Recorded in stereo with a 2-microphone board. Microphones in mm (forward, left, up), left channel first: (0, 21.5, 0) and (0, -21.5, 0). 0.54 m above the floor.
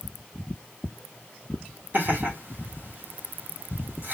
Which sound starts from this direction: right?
Laughter, at 1.9 s.